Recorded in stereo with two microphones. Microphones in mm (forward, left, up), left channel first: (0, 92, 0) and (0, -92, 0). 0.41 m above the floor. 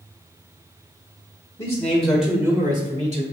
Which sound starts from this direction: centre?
A man speaking, at 1.6 s.